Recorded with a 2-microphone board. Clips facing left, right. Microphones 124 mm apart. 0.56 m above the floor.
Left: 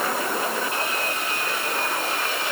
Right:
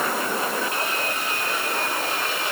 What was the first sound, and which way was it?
Only background noise.